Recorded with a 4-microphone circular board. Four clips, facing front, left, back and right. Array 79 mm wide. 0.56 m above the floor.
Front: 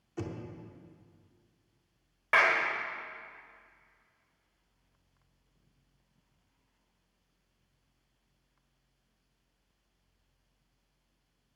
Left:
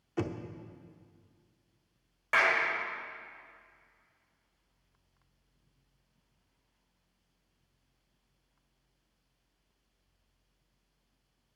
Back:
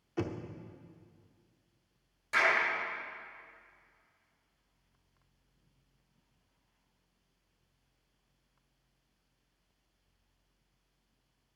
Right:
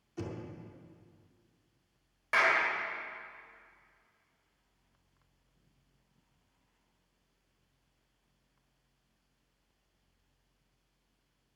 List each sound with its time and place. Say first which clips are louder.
0.2 s knocking: left 6 dB, back 3 dB; 115° left, 0.9 m
2.3 s a clap: even, front 3 dB; 5° left, 1.9 m